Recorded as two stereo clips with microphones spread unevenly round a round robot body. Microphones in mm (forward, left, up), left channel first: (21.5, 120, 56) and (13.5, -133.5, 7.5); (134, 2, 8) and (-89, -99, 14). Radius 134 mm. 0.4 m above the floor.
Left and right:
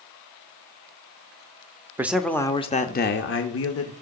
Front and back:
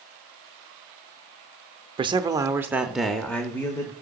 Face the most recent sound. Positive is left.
turn(degrees=100)